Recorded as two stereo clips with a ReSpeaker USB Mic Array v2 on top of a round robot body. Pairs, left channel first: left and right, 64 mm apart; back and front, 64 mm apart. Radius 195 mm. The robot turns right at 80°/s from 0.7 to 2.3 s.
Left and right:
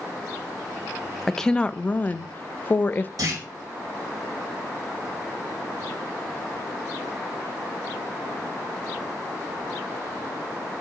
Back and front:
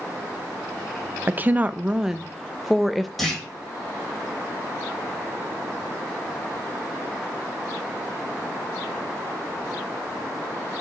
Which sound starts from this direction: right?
A clunk, at 3.2 s.